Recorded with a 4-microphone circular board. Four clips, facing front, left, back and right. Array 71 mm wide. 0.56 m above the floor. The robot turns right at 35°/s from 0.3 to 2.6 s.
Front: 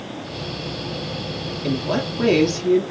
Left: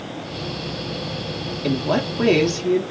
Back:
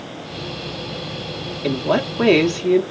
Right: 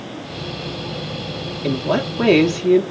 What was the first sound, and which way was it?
A woman speaking, straight behind.